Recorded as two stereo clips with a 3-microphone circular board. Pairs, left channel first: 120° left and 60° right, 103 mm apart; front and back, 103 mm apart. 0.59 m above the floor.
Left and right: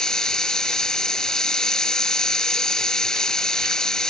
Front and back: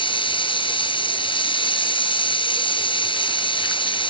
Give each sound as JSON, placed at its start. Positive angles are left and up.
{"t": 0.0, "sound": "running water", "azimuth_deg": 35}